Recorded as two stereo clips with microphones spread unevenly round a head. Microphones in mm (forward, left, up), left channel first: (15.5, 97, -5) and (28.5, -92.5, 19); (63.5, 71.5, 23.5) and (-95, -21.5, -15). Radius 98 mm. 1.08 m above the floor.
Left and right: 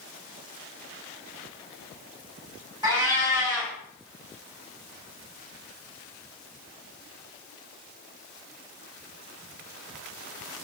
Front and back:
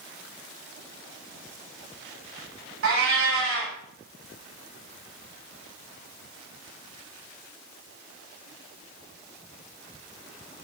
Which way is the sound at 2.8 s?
155° right.